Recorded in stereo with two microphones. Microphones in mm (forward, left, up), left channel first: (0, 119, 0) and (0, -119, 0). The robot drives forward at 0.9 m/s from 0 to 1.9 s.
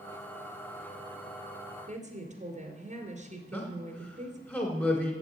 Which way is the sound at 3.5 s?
5° left (ahead or behind).